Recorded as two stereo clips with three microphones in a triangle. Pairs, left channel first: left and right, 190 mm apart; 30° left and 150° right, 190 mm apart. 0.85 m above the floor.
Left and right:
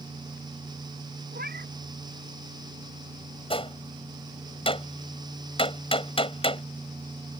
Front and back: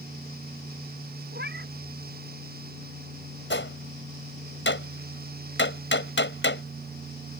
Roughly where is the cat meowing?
Behind right.